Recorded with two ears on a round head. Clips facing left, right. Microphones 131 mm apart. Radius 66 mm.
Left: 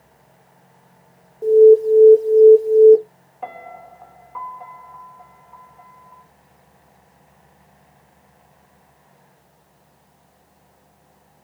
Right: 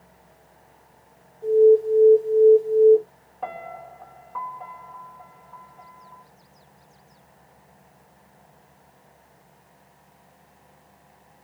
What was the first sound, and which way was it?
An alarm, 60° left (ahead or behind).